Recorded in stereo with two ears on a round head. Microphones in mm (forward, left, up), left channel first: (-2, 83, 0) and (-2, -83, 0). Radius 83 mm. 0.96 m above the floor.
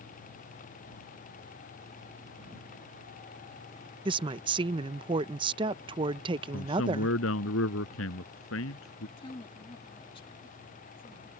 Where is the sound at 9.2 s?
30° left (ahead or behind).